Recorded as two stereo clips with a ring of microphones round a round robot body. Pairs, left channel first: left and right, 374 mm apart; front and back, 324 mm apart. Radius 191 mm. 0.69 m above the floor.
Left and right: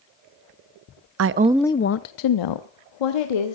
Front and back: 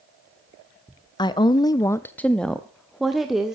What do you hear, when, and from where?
1.2 s a woman speaking: 70° right, 0.6 m; by 3.6 s 90° left, 1.7 m